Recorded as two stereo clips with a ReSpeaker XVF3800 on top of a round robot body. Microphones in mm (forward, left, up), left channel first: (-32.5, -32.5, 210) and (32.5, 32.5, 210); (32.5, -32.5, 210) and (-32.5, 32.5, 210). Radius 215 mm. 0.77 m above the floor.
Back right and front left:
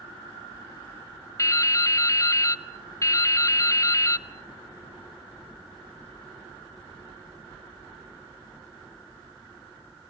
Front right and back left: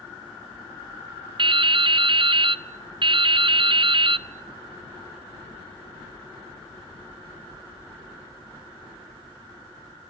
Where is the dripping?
170° left, 0.8 m.